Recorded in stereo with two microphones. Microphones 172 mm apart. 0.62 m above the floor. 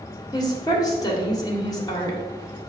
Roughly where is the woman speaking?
Left.